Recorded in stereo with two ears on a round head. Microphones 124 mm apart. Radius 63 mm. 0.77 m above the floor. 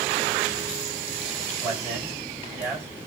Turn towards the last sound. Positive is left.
turn(degrees=-20)  # may be behind; listen again after turning